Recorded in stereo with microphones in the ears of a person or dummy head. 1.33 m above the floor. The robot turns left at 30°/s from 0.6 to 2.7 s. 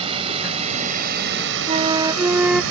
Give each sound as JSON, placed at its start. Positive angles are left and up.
{"t": 0.0, "sound": "a drone", "side_deg": -30}
{"t": 1.7, "sound": "a flute", "side_deg": -30}